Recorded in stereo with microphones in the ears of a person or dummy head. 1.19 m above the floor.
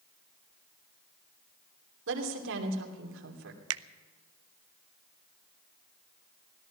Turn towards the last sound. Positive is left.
turn(degrees=-75)  # may be behind; listen again after turning